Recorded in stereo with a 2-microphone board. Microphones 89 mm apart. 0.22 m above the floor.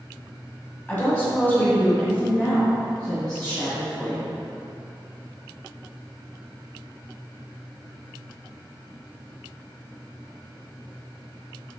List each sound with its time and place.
0.9 s a woman speaking: 20° left (ahead or behind), 1.2 m; by 4.3 s 5° left (ahead or behind), 1.9 m